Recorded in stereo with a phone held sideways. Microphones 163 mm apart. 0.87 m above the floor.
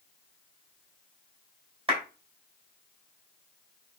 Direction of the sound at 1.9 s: 35° right (ahead or behind).